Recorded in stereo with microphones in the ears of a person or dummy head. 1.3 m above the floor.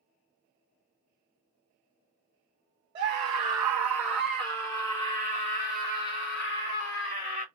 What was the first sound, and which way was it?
A scream, 35° right (ahead or behind).